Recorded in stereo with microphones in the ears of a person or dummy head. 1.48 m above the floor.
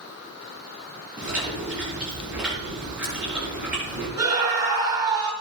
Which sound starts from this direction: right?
A scream, at 4.2 s.